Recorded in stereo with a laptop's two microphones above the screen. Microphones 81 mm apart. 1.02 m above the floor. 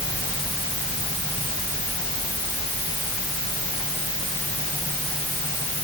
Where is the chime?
I don't hear a chime.